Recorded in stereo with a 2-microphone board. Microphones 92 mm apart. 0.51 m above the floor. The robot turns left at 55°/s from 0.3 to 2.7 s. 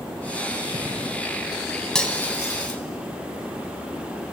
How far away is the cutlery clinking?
About 3 m.